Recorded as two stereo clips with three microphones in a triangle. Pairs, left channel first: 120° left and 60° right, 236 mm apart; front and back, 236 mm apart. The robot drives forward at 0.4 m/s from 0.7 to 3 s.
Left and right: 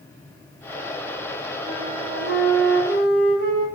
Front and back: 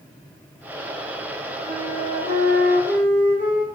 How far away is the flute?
About 6 m.